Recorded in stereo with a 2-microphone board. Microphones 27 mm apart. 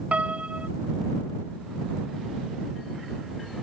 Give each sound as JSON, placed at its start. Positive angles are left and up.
{"t": 0.1, "sound": "a piano", "side_deg": -55}